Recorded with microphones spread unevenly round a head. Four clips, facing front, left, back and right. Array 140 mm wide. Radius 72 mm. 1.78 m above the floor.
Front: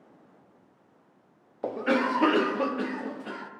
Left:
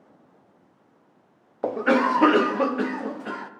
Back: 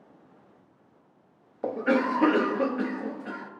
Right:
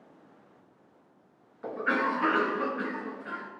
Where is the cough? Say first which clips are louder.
Left 8 dB, back 1 dB; 100° left, 0.7 m.